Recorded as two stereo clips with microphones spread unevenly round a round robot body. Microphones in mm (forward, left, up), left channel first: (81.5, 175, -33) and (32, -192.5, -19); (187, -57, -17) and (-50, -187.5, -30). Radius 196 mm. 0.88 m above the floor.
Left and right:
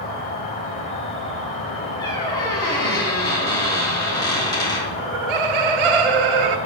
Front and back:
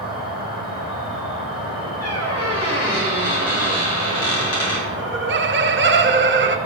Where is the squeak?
Straight ahead, 3 m.